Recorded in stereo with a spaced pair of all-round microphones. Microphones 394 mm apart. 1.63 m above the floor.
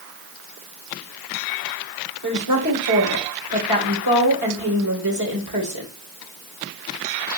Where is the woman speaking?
65° right (ahead or behind), 2 m.